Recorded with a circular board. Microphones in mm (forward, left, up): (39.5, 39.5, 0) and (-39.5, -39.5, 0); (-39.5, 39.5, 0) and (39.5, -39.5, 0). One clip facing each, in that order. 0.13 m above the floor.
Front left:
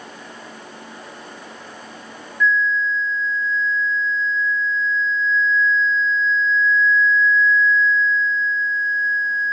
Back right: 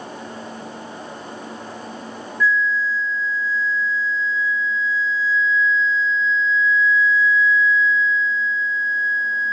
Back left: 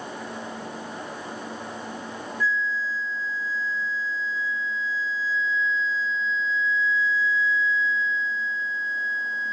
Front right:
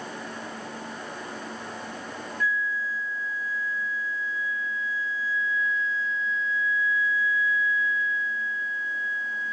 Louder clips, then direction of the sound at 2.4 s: Front left 1 dB, back left 2 dB; 50° right.